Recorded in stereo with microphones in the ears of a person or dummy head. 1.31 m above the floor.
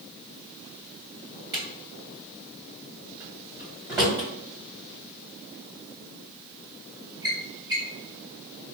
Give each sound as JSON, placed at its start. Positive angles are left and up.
{"t": 1.5, "sound": "a drawer", "side_deg": -20, "distance_m": 1.8}